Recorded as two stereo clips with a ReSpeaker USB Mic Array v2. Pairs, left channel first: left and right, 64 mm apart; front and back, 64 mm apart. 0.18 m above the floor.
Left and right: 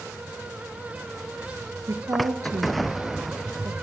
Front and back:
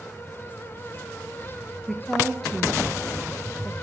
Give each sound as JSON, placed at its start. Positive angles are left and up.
{"t": 1.9, "sound": "a woman speaking", "azimuth_deg": -80, "distance_m": 3.0}